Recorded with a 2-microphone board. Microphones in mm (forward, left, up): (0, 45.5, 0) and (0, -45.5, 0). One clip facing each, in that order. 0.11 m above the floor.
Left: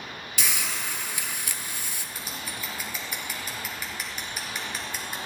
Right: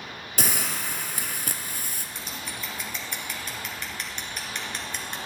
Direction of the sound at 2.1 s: 5° left (ahead or behind).